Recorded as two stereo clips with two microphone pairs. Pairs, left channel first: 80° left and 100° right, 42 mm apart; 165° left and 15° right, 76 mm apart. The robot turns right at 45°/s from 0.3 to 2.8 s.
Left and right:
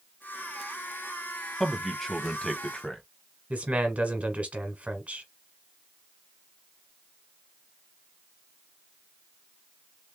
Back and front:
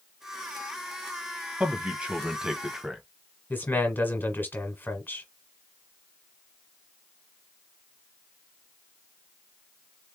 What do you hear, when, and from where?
1.6 s a man speaking: straight ahead, 1.0 m; by 3.0 s 55° left, 1.0 m
3.5 s a man speaking: 140° right, 1.6 m